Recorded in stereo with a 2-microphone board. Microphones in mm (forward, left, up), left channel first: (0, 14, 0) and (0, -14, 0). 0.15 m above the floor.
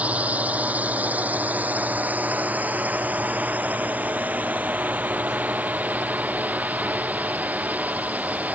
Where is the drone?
60° right (ahead or behind); by 8.5 s 70° right (ahead or behind).